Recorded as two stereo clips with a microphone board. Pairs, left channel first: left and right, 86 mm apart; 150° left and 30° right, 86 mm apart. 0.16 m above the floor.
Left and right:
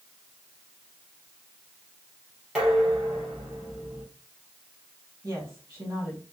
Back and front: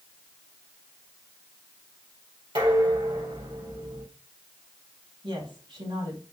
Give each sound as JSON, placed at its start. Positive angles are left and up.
{"t": 2.5, "sound": "dishes clattering", "azimuth_deg": -5, "distance_m": 3.5}
{"t": 5.2, "sound": "a woman speaking", "azimuth_deg": -30, "distance_m": 3.5}